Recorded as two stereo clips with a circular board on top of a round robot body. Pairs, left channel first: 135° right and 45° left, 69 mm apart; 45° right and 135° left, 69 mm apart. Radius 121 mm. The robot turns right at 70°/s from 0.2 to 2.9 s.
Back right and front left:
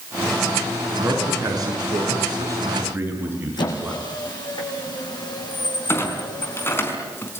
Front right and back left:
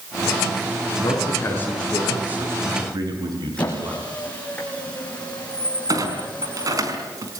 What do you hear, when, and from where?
1.0 s a man speaking: 25° right, 7.5 m; by 4.0 s 110° left, 7.5 m
3.6 s a squeak: 120° right, 6 m
5.9 s a clunk: 170° left, 4.5 m